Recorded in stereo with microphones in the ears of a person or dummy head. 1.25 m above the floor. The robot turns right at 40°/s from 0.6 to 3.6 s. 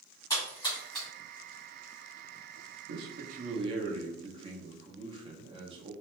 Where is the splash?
25° left (ahead or behind), 1.4 m; by 1.1 s 5° left (ahead or behind), 1.4 m.